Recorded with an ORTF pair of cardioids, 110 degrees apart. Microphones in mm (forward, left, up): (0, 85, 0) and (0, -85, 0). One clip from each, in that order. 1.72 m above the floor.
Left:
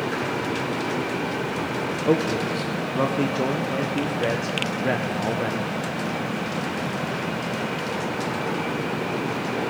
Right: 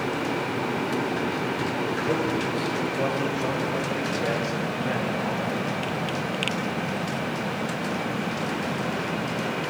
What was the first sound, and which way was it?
A man speaking, 45° left.